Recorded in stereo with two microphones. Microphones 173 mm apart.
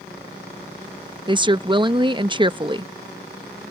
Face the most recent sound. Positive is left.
turn(degrees=-25)  # may be behind; listen again after turning